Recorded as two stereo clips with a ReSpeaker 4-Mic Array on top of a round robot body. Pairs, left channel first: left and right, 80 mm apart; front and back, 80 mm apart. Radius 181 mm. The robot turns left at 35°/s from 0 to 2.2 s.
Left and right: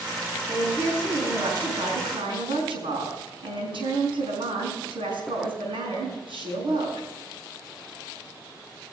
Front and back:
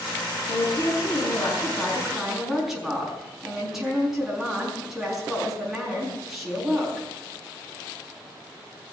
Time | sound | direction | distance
0.5 | a woman speaking | 35° right | 5.5 m